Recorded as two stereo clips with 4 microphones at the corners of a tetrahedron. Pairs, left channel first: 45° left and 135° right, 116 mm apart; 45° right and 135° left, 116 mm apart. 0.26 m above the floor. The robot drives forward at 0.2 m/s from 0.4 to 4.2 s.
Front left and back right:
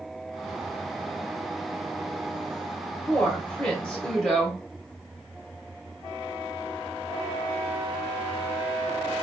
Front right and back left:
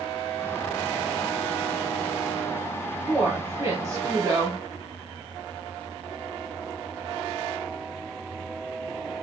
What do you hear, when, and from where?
3.1 s a woman speaking: 105° left, 1.0 m; by 4.6 s 125° left, 1.1 m